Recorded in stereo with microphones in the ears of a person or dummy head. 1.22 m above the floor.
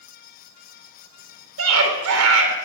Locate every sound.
1.6 s a scream: 80° right, 3.5 m